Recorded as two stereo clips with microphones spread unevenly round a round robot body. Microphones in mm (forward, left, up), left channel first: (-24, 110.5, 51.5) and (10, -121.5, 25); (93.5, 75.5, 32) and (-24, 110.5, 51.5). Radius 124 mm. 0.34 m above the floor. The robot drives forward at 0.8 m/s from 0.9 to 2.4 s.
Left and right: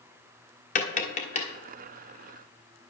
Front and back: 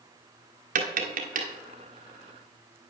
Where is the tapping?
160° left, 1.3 m; by 1.5 s 165° left, 1.7 m.